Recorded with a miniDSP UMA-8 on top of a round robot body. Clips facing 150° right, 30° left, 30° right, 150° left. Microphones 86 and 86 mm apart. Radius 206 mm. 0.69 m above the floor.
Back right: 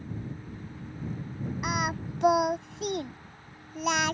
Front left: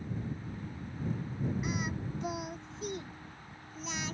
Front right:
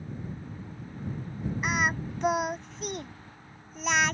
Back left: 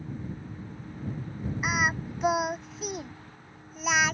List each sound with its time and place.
1.6 s singing: 125° right